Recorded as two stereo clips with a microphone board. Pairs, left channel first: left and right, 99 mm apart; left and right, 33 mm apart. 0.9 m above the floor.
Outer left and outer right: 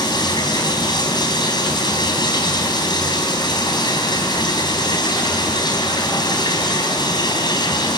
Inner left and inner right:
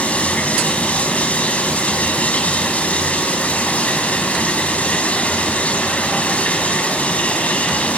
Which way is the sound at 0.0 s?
45° left (ahead or behind).